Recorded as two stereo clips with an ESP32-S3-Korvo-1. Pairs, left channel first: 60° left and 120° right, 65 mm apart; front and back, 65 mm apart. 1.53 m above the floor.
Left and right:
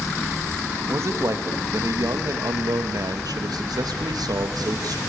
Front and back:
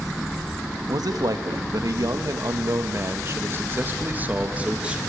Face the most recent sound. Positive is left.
turn(degrees=-105)